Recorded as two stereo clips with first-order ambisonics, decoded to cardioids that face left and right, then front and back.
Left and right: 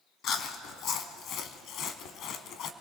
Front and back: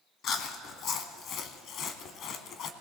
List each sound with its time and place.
0.2 s chewing: 45° left, 0.8 m